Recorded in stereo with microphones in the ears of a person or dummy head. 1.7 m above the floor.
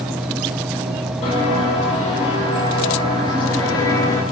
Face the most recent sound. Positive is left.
turn(degrees=10)  # may be behind; listen again after turning